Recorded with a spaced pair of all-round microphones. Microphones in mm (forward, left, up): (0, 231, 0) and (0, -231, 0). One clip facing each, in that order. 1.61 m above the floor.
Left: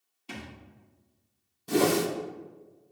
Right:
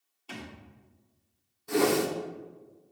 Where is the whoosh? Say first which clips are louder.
Left 1 dB; 55° left (ahead or behind), 0.6 m.